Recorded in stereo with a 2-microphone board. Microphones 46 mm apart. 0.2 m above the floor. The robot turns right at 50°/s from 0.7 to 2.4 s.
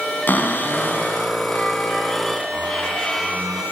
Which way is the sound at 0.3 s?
80° left.